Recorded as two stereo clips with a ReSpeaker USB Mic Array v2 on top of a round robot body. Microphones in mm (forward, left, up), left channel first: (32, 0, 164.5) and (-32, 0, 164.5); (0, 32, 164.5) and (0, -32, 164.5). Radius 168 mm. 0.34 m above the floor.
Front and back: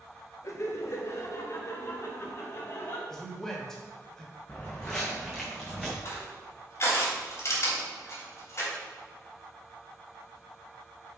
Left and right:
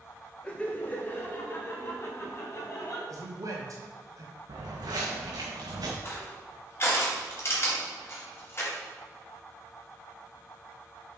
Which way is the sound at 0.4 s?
20° left.